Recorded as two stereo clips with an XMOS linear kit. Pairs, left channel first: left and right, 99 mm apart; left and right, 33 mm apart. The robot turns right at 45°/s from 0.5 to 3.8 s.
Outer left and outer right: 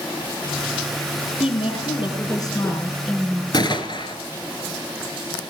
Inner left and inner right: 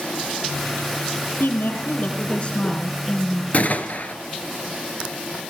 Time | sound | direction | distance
1.4 | a woman speaking | 90° left | 4 m
3.5 | a gunshot | 50° left (ahead or behind) | 1.2 m